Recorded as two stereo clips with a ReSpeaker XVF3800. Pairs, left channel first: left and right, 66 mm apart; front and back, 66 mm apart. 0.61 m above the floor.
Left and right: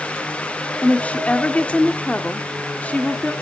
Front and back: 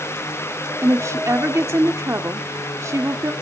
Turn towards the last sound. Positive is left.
turn(degrees=155)